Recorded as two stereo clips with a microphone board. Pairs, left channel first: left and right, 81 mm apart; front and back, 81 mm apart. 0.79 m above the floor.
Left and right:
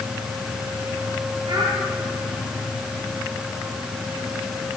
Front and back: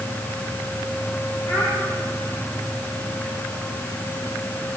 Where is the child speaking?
60° right, 4 m.